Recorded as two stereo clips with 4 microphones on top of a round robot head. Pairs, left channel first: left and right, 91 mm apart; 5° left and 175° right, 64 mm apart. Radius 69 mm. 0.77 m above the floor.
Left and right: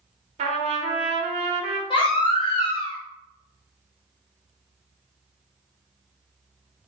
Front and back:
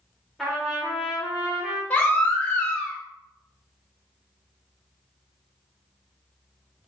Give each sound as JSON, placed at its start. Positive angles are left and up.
{"t": 0.4, "sound": "a trumpet", "azimuth_deg": -80, "distance_m": 0.7}
{"t": 1.9, "sound": "a baby crying", "azimuth_deg": 70, "distance_m": 1.0}